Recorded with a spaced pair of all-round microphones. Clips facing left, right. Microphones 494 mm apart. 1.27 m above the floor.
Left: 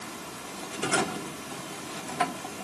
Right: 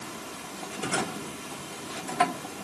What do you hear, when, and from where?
Only background noise.